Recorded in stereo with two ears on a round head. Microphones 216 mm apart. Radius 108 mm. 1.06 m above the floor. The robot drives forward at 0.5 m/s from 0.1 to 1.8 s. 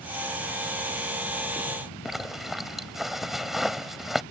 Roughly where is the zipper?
Centre.